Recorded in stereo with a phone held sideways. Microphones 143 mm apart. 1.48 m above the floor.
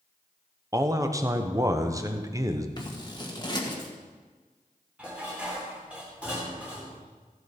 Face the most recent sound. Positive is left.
turn(degrees=-10)  # may be behind; listen again after turning